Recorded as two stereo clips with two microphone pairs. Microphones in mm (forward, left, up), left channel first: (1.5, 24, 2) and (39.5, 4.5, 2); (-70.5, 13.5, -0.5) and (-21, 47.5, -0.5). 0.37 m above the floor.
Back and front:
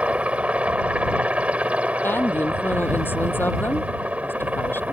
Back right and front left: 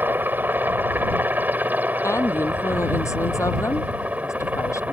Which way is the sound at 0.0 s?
5° left.